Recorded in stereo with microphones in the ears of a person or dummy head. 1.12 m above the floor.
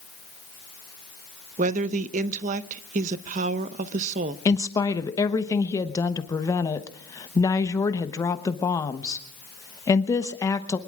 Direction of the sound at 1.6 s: 35° right (ahead or behind).